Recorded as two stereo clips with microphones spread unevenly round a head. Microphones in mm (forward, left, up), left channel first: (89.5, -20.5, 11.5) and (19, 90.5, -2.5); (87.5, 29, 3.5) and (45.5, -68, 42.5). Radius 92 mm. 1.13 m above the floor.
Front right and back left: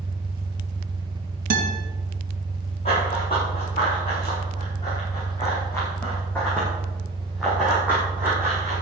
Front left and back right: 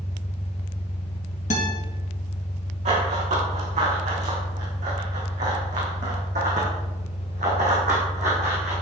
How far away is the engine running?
About 1.0 m.